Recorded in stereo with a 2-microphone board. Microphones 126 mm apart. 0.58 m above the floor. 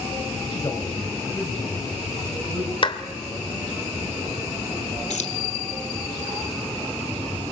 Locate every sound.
0.5 s a man speaking: 35° left (ahead or behind), 3.5 m
2.8 s a clap: 45° left (ahead or behind), 1.5 m
5.1 s keys jangling: 75° left (ahead or behind), 2.5 m